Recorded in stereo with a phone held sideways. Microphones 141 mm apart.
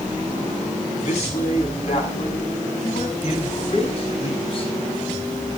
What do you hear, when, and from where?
1.0 s a man speaking: 50° left (ahead or behind), 7 m; by 4.7 s 40° left (ahead or behind), 5.5 m